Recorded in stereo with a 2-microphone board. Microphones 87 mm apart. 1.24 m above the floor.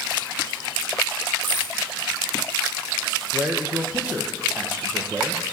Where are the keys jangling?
20° left (ahead or behind), 5 m.